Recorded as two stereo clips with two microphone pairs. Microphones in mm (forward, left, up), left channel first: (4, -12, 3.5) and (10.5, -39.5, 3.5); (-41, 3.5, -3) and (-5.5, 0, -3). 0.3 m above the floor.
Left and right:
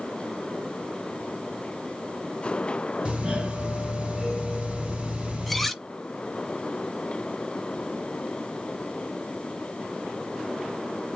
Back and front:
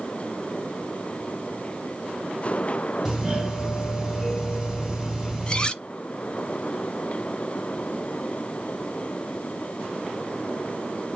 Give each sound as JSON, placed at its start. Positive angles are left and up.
{"t": 3.0, "sound": "a doorbell", "azimuth_deg": -80, "distance_m": 1.8}
{"t": 5.5, "sound": "cutlery clinking", "azimuth_deg": -175, "distance_m": 0.6}